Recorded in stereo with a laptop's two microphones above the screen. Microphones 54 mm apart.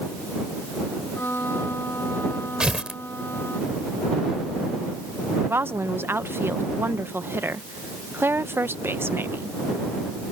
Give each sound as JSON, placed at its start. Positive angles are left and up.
{"t": 1.1, "sound": "a violin", "side_deg": 45}
{"t": 2.6, "sound": "tearing paper", "side_deg": -15}
{"t": 5.5, "sound": "a woman speaking", "side_deg": -45}